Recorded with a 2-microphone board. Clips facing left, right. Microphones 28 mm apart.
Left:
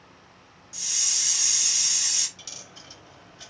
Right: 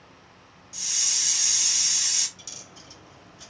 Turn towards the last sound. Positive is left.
turn(degrees=20)  # may be behind; listen again after turning